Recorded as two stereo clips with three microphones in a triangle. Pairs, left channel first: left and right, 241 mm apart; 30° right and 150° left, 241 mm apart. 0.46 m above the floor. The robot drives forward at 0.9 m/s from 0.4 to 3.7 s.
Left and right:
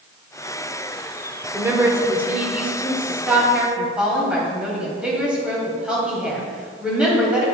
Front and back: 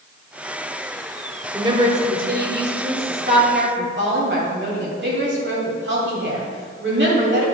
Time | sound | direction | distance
1.5 | a woman speaking | 155° right | 1.0 m